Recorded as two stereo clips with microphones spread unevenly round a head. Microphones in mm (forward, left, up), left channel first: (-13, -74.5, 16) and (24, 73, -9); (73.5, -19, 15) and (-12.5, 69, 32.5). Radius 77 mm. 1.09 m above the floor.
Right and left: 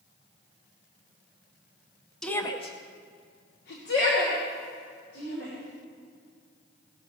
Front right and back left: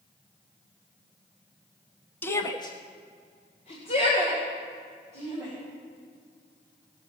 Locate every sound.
2.2 s a shout: 5° right, 0.8 m; by 5.5 s 90° right, 4 m